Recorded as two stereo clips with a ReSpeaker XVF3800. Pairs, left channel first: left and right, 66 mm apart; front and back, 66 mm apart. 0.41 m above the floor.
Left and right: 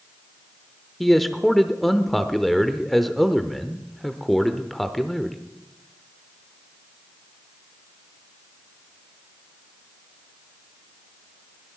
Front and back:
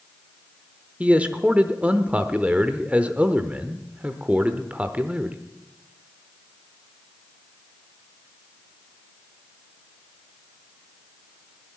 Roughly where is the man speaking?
Behind.